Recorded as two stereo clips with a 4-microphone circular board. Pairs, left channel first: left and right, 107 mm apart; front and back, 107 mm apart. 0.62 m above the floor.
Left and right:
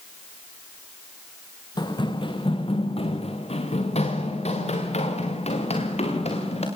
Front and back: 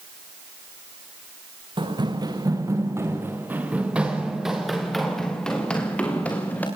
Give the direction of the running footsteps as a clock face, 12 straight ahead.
7 o'clock.